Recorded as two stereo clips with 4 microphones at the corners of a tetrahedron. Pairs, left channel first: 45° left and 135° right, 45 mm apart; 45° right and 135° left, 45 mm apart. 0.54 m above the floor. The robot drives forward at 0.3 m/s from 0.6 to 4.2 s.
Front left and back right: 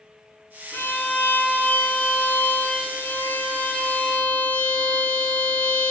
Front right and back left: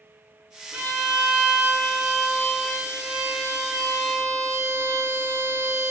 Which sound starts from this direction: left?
A violin, at 0.7 s.